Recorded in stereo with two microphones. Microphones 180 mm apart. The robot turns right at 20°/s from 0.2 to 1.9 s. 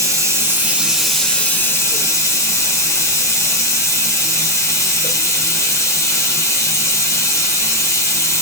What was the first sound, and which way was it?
Running water, 20° right.